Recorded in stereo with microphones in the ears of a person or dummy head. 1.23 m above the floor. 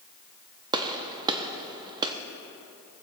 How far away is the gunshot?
About 1.0 m.